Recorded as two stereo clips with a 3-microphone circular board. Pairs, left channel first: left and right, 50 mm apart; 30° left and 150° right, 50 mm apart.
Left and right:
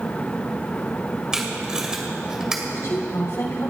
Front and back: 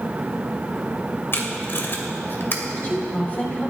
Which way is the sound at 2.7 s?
85° left.